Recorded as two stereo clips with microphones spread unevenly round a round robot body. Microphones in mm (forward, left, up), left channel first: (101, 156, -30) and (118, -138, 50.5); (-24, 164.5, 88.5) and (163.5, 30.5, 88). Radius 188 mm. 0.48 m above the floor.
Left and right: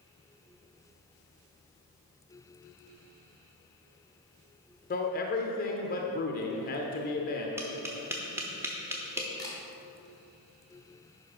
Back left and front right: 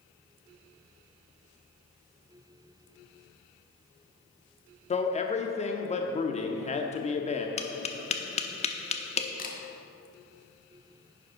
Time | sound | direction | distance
4.9 | a man speaking | 95° left | 0.9 m
7.6 | tapping | 170° left | 0.8 m
9.4 | a camera shutter | 140° left | 1.3 m